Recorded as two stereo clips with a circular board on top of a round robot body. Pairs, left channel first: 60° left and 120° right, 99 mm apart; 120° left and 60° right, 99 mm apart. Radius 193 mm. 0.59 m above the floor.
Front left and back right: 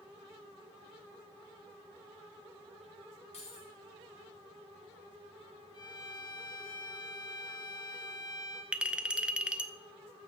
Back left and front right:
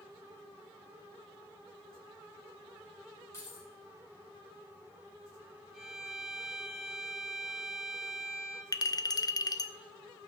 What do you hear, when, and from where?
3.3 s keys jangling: 60° left, 5 m
5.7 s a violin: 25° left, 2.5 m
8.7 s a clink: 160° left, 0.8 m